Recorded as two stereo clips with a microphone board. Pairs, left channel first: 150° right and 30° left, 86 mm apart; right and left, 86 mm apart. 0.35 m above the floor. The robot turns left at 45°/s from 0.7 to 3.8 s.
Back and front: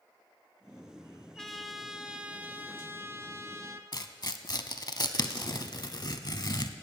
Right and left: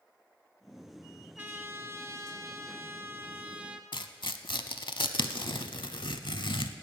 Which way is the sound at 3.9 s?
110° right.